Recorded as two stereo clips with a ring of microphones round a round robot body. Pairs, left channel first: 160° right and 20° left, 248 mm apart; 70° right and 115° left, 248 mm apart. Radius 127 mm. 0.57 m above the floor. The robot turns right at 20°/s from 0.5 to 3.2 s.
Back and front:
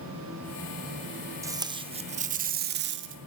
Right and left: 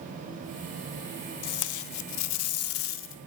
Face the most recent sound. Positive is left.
turn(degrees=-20)